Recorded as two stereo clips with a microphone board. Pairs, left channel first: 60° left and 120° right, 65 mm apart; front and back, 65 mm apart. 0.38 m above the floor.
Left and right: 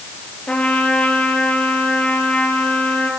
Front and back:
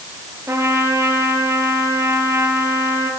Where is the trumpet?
130° left, 3.5 m.